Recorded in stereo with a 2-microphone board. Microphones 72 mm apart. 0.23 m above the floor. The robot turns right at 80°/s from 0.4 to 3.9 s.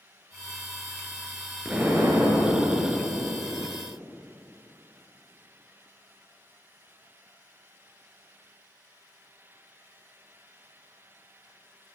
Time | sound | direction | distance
1.6 | an explosion | 170° right | 2.5 m